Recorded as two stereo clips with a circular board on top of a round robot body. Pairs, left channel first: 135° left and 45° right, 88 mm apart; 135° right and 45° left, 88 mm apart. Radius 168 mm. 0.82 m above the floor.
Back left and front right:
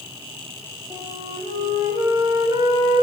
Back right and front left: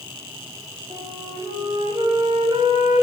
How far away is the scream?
No scream in this recording.